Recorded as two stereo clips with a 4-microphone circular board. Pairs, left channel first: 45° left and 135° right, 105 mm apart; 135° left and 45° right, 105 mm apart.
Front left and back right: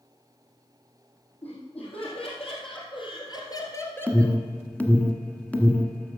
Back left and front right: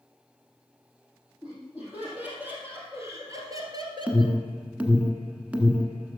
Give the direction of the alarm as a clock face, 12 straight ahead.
12 o'clock.